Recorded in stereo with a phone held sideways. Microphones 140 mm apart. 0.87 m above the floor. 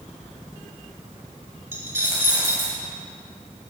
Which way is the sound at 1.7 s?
20° right (ahead or behind).